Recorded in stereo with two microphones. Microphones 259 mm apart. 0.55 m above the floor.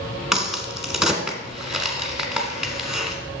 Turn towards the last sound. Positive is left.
turn(degrees=0)  # may be behind; listen again after turning